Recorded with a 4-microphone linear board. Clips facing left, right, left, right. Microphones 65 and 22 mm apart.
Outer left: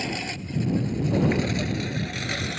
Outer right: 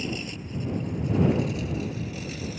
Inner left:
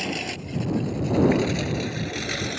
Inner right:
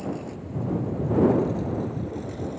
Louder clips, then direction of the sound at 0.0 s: Outer left 2 dB, inner left 4 dB; 70° left (ahead or behind).